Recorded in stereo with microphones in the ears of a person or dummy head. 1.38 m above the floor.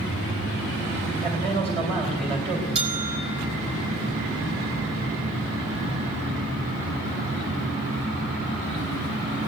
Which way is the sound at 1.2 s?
35° right (ahead or behind).